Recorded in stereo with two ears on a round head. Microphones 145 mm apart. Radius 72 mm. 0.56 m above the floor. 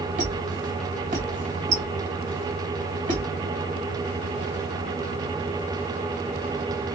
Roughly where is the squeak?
Right.